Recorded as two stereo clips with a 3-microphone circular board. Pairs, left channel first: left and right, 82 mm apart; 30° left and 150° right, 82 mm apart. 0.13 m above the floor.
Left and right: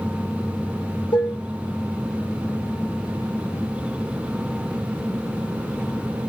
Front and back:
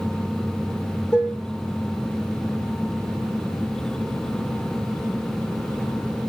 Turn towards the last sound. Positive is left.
turn(degrees=85)